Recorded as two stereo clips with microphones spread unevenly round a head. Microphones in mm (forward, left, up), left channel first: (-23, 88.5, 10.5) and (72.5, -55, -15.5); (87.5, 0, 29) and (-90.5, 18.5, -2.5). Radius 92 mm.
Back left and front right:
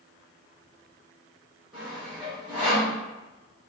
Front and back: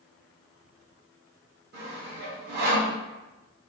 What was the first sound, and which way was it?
Sawing, 145° right.